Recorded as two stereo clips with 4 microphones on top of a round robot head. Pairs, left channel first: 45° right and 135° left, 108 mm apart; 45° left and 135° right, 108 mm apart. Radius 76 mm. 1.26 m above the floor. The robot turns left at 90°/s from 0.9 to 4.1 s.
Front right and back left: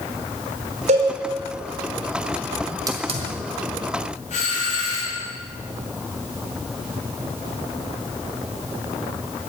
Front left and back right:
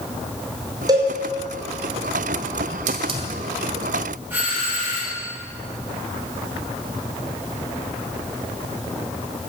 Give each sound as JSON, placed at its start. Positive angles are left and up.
{"t": 0.9, "sound": "a cowbell", "azimuth_deg": 165, "distance_m": 5.5}
{"t": 2.9, "sound": "a hiss", "azimuth_deg": -160, "distance_m": 1.7}
{"t": 4.3, "sound": "a doorbell", "azimuth_deg": -60, "distance_m": 9.5}